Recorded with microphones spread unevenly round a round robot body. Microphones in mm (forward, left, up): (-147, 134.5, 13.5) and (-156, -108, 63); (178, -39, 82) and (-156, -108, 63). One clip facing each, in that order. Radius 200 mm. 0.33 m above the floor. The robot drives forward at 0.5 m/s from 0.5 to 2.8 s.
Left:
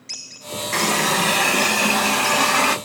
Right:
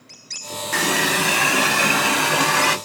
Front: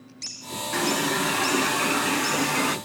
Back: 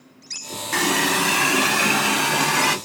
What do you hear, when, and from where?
0.7 s a running tap: 175° right, 1.0 m; by 2.8 s straight behind, 1.8 m